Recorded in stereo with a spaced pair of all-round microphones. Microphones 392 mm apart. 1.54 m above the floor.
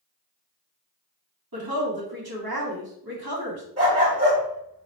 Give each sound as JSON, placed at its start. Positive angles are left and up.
{"t": 1.5, "sound": "a woman speaking", "side_deg": -60, "distance_m": 1.5}
{"t": 3.8, "sound": "a dog barking", "side_deg": -35, "distance_m": 2.0}